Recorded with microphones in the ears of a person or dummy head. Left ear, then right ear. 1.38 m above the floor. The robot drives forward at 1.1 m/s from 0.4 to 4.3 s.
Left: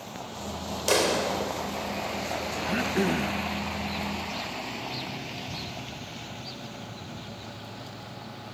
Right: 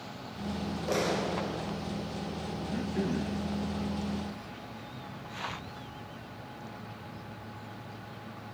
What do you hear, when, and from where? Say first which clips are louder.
0.9 s a clap: left 6 dB; 80° left, 4.5 m; by 1.7 s 85° left, 4.5 m
2.6 s throat clearing: left 9 dB; 55° left (ahead or behind), 0.7 m; by 3.5 s 30° left (ahead or behind), 1.2 m